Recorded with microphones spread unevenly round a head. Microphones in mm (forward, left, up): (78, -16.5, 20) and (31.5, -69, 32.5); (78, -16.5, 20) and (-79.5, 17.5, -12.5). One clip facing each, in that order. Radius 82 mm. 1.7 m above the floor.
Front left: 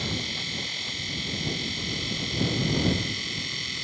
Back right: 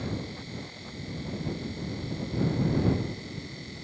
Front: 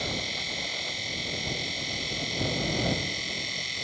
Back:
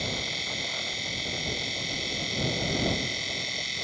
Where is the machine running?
75° left.